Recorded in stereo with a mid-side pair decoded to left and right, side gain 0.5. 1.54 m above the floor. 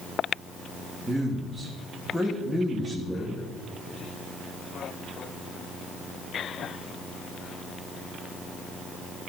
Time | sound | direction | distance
1.0 | a man speaking | 5° left | 1.5 m